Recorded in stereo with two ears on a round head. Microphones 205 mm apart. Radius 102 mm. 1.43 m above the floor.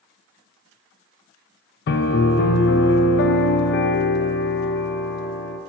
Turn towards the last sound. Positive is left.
turn(degrees=50)  # may be behind; listen again after turning